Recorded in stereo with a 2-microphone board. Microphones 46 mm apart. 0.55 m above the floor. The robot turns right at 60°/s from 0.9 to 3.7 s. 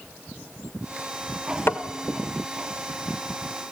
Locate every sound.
1.7 s tapping: 55° left (ahead or behind), 1.4 m; by 1.8 s 45° left (ahead or behind), 1.4 m